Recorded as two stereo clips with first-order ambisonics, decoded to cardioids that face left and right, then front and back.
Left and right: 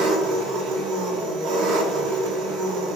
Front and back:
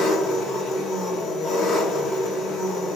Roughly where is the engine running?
Ahead right.